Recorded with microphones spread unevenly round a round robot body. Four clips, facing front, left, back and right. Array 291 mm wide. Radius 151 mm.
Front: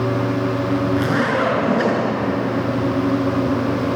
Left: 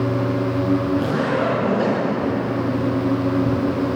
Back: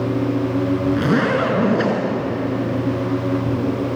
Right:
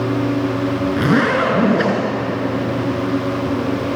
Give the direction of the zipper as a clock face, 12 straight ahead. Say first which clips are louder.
Right 4 dB, back 1 dB; 4 o'clock.